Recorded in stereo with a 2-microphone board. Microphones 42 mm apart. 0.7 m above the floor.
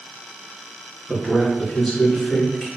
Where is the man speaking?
10° left (ahead or behind), 0.9 m; by 2.7 s 15° left (ahead or behind), 1.6 m.